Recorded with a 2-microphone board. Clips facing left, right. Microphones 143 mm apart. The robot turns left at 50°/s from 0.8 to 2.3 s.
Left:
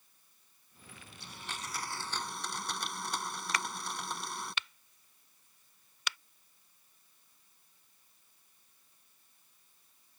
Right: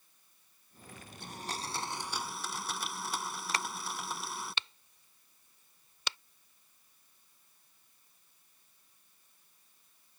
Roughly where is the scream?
No scream in this recording.